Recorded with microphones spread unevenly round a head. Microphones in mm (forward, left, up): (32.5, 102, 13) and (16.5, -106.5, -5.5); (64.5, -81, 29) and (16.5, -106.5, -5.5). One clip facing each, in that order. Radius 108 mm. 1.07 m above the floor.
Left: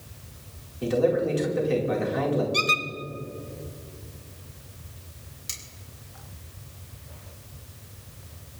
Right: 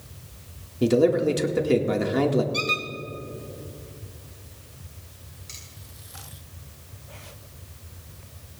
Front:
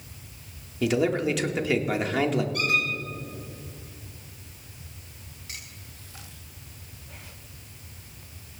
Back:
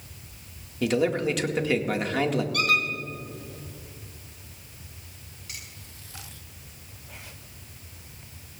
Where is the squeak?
155° left, 1.3 m.